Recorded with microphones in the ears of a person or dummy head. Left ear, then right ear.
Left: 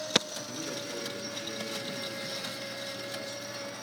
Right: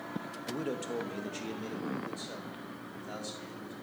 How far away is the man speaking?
About 0.6 m.